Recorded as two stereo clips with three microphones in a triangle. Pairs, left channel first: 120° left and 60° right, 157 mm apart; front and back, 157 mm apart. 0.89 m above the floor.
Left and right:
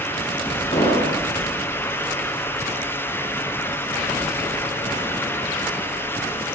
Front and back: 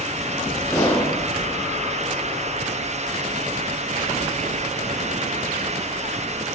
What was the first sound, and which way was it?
An explosion, 75° left.